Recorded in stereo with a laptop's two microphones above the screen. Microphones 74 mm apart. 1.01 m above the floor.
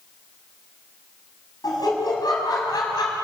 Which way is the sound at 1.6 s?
60° left (ahead or behind).